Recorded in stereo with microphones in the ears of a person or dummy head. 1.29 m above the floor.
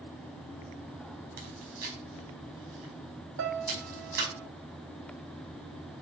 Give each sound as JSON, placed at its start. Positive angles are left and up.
{"t": 1.4, "sound": "chewing", "side_deg": -55, "distance_m": 5.0}
{"t": 3.4, "sound": "a piano", "side_deg": -75, "distance_m": 3.5}